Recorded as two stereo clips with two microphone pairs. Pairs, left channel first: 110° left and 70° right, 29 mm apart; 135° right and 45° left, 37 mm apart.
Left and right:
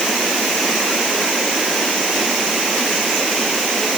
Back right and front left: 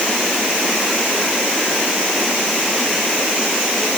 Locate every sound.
Only background noise.